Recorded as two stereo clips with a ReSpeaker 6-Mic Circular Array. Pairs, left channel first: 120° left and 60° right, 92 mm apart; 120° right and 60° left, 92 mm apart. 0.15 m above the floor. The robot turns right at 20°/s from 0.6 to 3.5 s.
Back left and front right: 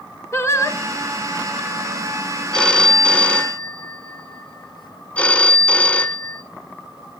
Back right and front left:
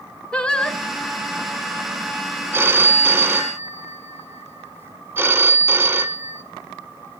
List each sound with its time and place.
0.3 s singing: 165° left, 0.6 m; by 0.8 s 170° left, 0.6 m
2.5 s a phone ringing: 55° left, 0.6 m; by 6.4 s 75° left, 0.6 m